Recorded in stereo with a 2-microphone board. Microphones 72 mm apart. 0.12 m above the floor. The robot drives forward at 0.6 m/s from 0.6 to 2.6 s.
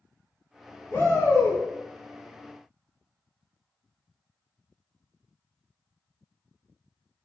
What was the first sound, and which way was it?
A shout, 35° left (ahead or behind).